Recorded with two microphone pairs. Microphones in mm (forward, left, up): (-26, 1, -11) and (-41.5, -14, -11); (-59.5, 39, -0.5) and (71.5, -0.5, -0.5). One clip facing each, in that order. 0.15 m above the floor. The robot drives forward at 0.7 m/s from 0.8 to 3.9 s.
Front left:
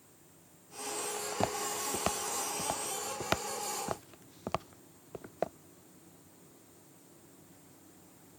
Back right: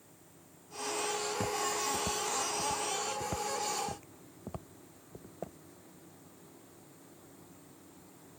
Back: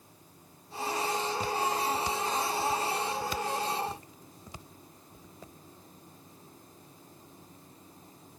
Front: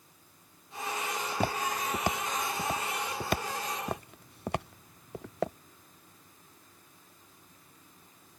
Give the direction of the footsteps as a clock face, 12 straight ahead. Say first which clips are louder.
Even, back 1 dB; 11 o'clock.